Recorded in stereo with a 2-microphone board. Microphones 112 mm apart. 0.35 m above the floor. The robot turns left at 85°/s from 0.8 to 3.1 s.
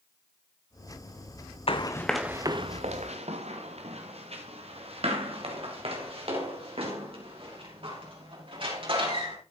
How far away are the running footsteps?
About 0.9 m.